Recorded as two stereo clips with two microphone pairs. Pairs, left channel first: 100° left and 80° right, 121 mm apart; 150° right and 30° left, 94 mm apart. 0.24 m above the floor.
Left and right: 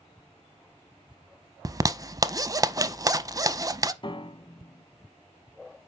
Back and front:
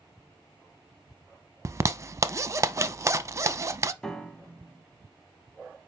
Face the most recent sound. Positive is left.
turn(degrees=130)